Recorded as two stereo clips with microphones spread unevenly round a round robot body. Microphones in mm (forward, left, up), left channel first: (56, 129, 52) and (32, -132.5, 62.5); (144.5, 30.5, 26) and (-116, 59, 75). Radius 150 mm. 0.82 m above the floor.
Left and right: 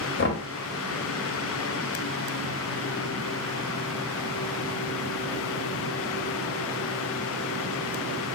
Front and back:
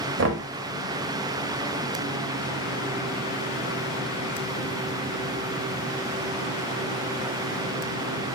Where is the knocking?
130° left, 1.1 m.